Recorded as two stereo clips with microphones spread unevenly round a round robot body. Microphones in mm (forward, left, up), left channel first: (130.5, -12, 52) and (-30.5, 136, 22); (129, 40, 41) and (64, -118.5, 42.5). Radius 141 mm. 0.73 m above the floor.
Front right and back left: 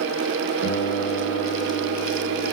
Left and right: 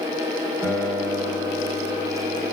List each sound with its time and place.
0.6 s a guitar: 20° right, 7.5 m